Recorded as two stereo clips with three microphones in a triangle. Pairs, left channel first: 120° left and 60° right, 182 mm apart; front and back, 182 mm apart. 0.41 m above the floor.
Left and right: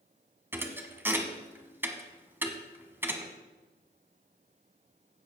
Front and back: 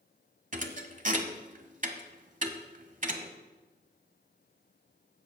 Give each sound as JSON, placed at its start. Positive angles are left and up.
{"t": 0.5, "sound": "a thud", "azimuth_deg": -135, "distance_m": 1.0}